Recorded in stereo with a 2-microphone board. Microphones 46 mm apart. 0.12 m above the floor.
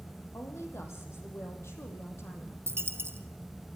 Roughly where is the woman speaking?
Left.